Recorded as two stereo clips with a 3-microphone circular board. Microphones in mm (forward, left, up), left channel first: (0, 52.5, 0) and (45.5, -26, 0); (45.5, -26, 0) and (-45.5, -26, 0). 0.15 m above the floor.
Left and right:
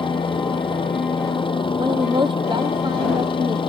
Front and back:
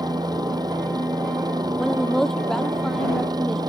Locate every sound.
0.0 s a helicopter: 140° left
1.8 s a woman speaking: 85° right